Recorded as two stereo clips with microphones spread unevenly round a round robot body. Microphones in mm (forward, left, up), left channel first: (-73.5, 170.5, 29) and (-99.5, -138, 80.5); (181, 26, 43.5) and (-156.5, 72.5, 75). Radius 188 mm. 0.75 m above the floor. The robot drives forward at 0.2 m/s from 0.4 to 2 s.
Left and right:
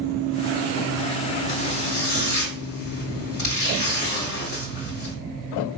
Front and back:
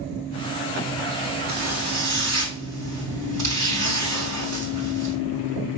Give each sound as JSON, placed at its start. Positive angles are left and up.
{"t": 1.5, "sound": "a zipper", "azimuth_deg": 135, "distance_m": 3.0}